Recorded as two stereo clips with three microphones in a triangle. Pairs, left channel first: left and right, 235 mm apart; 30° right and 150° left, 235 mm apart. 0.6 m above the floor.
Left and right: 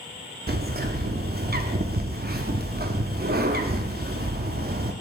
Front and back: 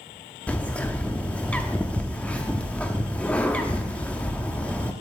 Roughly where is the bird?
Behind right.